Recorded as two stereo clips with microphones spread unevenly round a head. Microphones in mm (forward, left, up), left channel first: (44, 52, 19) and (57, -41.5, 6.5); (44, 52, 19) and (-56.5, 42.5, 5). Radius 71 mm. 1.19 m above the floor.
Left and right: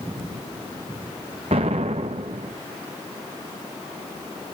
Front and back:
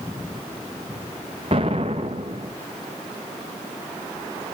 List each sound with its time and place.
1.5 s an explosion: 125° right, 1.1 m